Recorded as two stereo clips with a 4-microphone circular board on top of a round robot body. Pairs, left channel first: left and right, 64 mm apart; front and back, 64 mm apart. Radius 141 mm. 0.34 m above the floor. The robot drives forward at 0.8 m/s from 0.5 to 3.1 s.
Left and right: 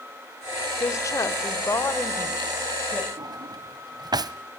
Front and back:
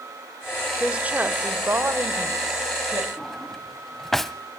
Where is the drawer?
85° right, 0.8 m.